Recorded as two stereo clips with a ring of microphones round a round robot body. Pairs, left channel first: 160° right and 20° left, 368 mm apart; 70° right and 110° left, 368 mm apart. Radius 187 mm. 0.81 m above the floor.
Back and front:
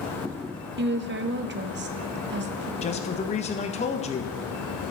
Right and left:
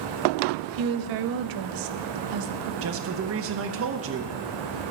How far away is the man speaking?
About 1.0 m.